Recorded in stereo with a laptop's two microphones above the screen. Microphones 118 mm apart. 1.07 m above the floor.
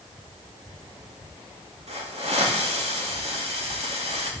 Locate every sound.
1.9 s a hiss: 65° right (ahead or behind), 2 m